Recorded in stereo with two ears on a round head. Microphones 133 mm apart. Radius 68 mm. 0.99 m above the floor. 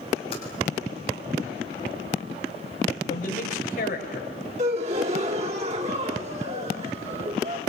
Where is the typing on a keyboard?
40° left (ahead or behind), 6.5 m.